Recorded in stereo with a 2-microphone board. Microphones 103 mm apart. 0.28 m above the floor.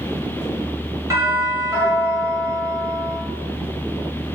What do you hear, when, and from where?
1.1 s a doorbell: 30° right (ahead or behind), 1.5 m